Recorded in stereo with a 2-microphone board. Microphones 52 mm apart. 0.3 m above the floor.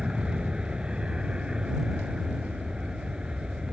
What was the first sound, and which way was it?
An aircraft, 20° right (ahead or behind).